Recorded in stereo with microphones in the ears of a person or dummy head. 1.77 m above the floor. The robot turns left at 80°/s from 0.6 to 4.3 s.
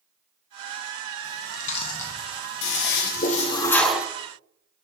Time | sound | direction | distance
1.2 | chewing | 70° left (ahead or behind) | 1.3 m
2.6 | a toilet flushing | 100° left | 1.0 m